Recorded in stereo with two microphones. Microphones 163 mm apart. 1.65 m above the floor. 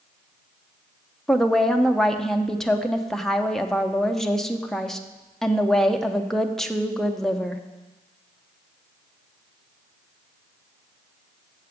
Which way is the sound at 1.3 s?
5° left (ahead or behind).